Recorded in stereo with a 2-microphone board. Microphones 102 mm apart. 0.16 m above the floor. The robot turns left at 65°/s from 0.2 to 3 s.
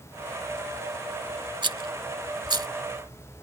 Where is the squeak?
No squeak in this recording.